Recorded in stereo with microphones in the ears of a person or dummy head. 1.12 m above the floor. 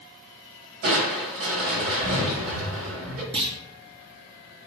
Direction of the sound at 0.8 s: 50° right (ahead or behind).